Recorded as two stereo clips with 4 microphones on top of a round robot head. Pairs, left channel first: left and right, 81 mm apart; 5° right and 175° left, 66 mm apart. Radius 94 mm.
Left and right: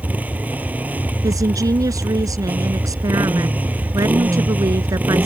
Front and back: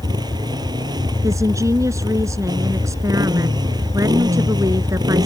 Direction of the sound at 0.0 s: 160° right.